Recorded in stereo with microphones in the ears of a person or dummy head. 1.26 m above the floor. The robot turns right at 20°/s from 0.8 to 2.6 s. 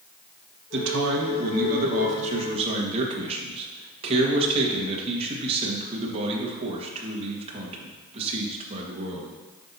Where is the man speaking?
65° right, 1.5 m; by 9.3 s 30° right, 1.5 m.